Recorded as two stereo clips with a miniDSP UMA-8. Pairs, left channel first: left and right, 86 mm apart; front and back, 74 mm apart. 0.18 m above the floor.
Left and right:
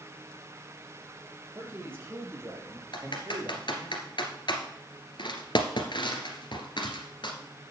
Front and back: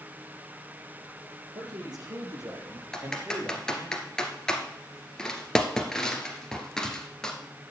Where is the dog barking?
I don't hear a dog barking.